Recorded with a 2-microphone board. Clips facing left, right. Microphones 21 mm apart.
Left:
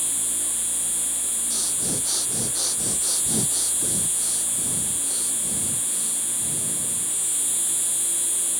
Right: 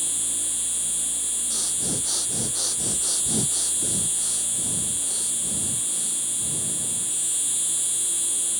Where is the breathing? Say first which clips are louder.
Left 1 dB; 5° left (ahead or behind).